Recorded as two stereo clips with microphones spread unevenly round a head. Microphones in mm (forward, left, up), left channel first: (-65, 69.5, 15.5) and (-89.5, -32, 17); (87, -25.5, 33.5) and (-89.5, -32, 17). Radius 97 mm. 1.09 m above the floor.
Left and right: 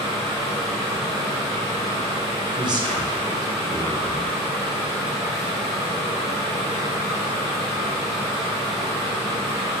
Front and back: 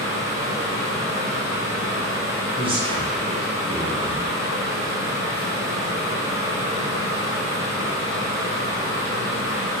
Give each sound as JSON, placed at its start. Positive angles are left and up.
{"t": 0.0, "sound": "a fan", "azimuth_deg": -105, "distance_m": 1.0}
{"t": 2.6, "sound": "a man speaking", "azimuth_deg": -130, "distance_m": 0.9}